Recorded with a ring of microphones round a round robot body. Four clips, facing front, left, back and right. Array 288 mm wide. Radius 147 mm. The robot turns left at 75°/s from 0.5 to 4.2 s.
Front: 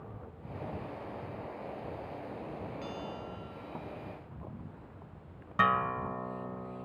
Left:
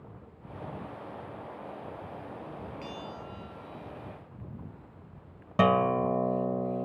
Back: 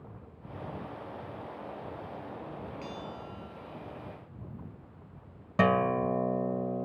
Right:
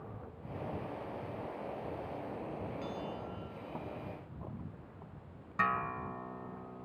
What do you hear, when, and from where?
2.8 s a bell: 135° left; by 4.0 s 40° left
5.6 s a guitar: 125° left